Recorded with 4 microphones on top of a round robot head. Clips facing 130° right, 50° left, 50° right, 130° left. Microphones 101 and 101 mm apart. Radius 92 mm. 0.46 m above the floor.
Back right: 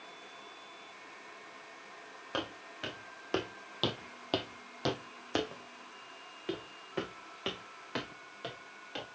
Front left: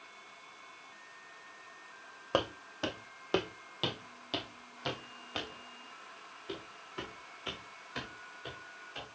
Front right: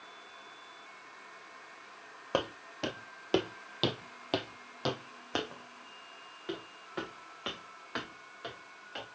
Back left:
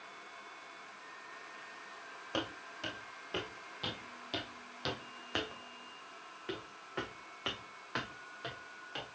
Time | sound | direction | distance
2.3 | footsteps | 5° right | 1.5 m